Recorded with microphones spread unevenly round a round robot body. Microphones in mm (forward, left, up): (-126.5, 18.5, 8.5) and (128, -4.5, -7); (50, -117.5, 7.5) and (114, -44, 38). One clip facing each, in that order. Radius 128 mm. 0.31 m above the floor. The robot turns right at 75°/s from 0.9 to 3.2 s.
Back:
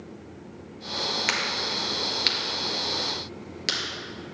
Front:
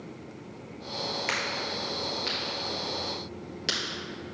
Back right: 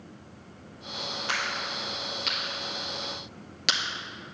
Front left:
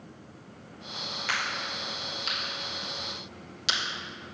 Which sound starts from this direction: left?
A crack, at 1.3 s.